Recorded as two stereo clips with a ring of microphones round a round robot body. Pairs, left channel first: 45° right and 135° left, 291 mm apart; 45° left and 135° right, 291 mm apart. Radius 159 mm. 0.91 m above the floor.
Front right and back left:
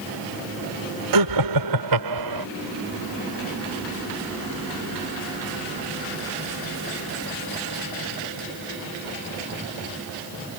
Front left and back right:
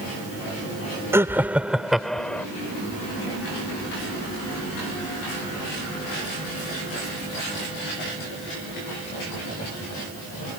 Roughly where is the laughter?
Behind left.